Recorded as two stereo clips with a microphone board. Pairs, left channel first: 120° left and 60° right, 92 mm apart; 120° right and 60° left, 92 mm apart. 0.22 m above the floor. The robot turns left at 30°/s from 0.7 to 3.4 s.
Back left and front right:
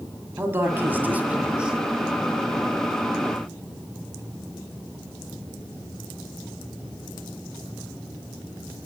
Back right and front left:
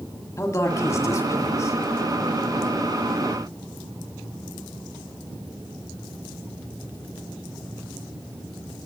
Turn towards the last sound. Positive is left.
turn(degrees=175)